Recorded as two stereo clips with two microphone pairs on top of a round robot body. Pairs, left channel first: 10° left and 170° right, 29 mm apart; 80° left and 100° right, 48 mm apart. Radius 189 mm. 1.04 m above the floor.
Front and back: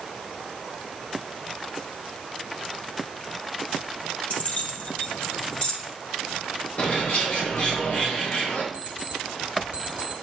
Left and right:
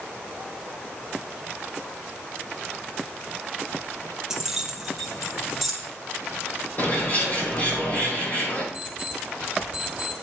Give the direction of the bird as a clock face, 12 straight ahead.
11 o'clock.